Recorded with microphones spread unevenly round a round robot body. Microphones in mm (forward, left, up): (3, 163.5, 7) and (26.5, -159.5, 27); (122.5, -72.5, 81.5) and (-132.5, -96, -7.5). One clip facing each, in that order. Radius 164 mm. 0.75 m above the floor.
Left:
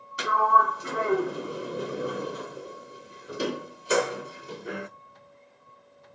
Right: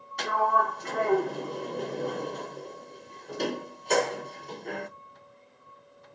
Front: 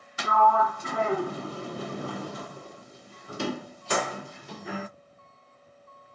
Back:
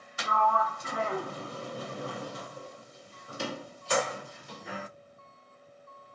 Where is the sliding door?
10° left, 0.6 m.